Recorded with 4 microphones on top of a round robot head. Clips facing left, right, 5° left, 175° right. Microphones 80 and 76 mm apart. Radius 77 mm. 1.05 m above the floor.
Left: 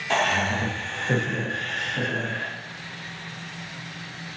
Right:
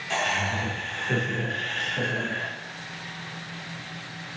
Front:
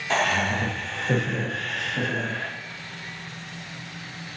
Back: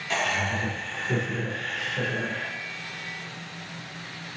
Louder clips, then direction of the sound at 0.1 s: Left 4 dB, front 4 dB; 50° left.